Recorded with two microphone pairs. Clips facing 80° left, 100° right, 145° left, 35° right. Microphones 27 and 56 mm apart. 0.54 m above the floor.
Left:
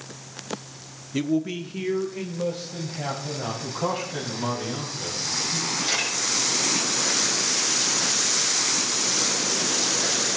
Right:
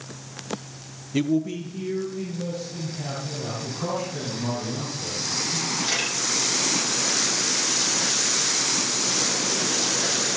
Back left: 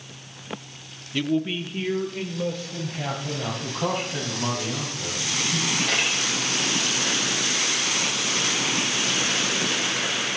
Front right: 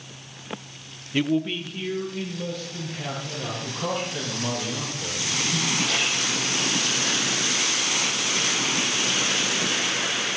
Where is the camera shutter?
170° left, 7.5 m.